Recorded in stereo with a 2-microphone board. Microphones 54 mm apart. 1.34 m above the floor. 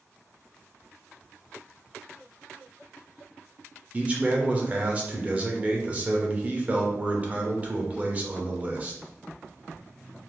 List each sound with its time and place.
3.9 s a man speaking: 25° right (ahead or behind), 0.7 m